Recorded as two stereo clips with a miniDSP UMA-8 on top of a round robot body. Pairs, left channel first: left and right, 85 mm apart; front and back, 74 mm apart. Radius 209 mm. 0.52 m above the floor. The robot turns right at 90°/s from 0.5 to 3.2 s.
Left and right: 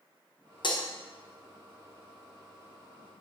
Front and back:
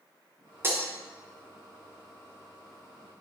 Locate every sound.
0.6 s breaking glass: 120° left, 1.2 m; by 0.9 s 140° left, 1.2 m